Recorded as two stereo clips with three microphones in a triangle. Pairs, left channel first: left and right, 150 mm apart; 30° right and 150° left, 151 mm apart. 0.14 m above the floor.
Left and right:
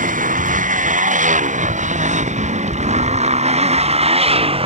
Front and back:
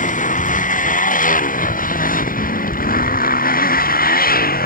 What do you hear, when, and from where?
0.0 s a motorcycle: 60° right; by 4.7 s 40° right